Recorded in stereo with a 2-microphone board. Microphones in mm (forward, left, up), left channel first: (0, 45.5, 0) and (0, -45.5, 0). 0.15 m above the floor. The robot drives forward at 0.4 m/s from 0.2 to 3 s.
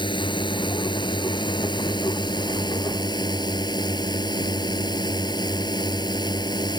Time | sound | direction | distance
0.0 | a drone | 60° left (ahead or behind) | ?